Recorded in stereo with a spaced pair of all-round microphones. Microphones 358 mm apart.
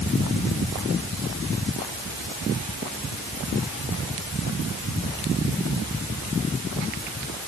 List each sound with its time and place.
Only background noise.